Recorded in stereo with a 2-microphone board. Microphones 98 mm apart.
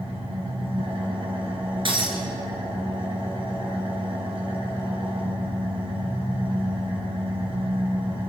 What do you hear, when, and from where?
0.0 s an engine running: 90° right, 4.5 m
1.9 s breaking glass: 65° right (ahead or behind), 2.5 m